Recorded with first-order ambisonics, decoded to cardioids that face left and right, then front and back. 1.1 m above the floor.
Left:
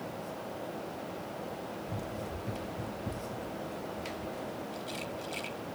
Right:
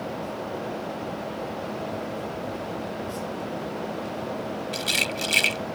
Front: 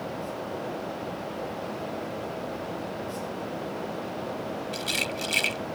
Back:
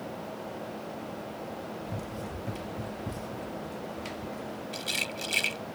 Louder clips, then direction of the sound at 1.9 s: Right 8 dB, front 5 dB; 160° left.